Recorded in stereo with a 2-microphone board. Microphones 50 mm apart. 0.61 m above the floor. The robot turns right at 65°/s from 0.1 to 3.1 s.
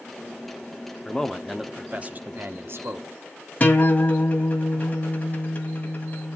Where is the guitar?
30° left (ahead or behind), 2.0 m.